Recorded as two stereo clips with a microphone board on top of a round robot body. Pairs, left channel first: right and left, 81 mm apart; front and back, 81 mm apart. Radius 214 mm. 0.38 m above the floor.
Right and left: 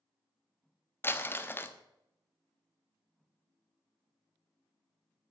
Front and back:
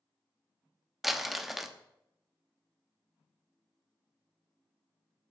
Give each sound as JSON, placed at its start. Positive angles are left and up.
{"t": 1.0, "sound": "crumpling", "azimuth_deg": -95, "distance_m": 1.4}